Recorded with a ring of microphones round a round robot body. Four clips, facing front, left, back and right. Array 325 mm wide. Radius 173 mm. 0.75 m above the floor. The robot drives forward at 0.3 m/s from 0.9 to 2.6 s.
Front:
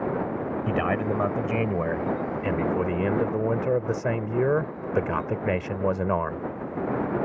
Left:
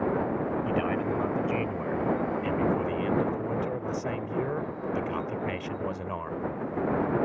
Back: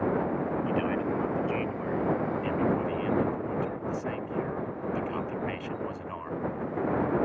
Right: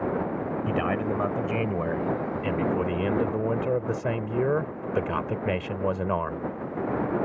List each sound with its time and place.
0.7 s a man speaking: 25° right; by 6.4 s 30° right